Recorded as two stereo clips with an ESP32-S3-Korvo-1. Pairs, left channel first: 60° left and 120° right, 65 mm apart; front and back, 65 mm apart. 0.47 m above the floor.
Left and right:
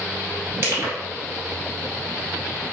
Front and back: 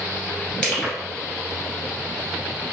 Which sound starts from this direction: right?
Crushing, at 0.6 s.